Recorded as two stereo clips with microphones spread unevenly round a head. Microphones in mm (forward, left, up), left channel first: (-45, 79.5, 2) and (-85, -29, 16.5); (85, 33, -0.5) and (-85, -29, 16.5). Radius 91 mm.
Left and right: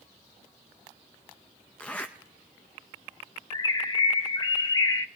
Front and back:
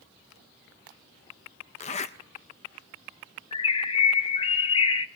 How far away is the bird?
About 0.6 m.